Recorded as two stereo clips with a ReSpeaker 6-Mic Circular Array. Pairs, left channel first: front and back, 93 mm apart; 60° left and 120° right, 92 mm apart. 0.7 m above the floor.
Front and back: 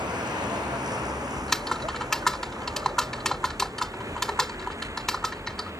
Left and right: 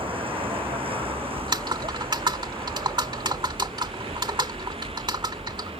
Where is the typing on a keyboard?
85° right.